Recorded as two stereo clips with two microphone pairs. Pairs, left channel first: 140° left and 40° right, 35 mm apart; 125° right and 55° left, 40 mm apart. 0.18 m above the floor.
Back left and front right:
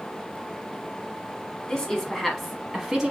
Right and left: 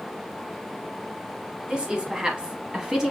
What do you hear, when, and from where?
1.7 s a woman speaking: 95° left, 1.1 m; by 3.1 s 5° left, 1.1 m